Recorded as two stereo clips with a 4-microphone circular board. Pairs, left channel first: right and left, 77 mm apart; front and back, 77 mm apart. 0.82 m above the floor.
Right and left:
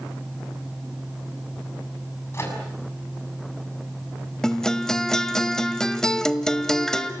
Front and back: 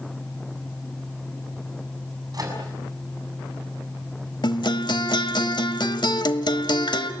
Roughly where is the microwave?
Behind right.